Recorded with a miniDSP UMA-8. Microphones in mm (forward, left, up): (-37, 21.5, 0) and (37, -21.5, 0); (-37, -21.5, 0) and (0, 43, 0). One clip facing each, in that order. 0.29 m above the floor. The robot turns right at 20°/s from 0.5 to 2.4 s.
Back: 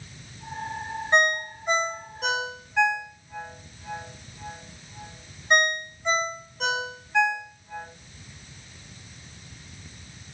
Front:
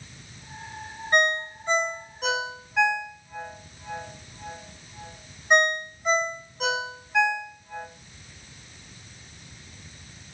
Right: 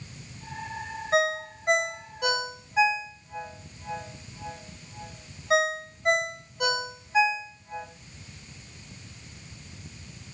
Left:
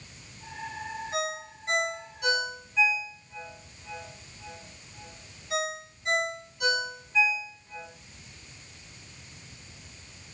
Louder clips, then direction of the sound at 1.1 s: Even, right 10 dB; 145° right.